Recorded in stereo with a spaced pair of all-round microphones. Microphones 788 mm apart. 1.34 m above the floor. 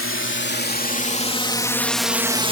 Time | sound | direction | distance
0.0 | a drone | 15° left (ahead or behind) | ?